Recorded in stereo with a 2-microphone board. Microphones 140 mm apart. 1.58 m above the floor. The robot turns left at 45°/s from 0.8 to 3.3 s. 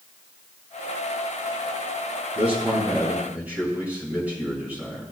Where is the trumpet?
No trumpet in this recording.